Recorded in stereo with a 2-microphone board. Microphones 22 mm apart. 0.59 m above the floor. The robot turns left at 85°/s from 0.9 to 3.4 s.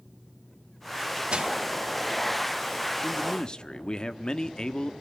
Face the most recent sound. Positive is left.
turn(degrees=85)